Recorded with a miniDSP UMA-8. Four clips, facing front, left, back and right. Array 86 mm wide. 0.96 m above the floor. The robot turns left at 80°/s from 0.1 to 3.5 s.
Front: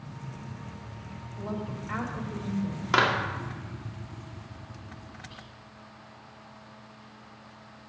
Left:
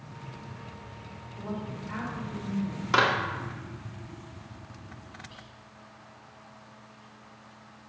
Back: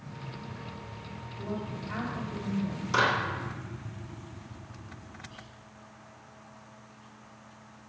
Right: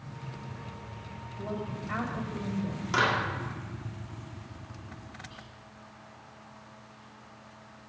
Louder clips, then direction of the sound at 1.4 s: Right 1 dB, front 1 dB; 40° left.